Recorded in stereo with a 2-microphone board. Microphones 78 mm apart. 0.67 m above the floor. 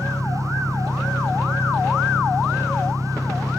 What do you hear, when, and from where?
0.0 s an engine running: 25° left (ahead or behind)